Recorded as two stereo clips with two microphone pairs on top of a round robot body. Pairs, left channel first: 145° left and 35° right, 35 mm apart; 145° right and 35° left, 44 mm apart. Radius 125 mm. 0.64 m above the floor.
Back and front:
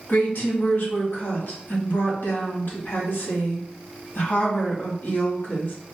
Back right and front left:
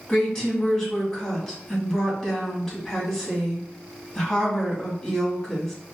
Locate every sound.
0.1 s a woman speaking: 145° left, 1.5 m